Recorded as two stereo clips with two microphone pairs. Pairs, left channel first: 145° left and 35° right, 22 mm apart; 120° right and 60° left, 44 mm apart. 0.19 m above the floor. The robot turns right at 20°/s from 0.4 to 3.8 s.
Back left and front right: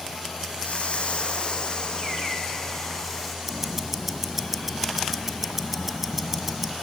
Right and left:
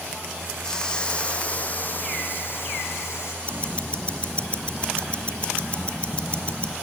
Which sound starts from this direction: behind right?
Ticking, at 3.5 s.